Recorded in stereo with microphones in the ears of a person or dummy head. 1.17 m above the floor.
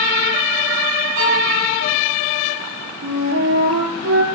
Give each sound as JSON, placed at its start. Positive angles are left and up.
{"t": 1.1, "sound": "a violin", "side_deg": -70, "distance_m": 4.5}
{"t": 3.0, "sound": "a flute", "side_deg": -80, "distance_m": 6.0}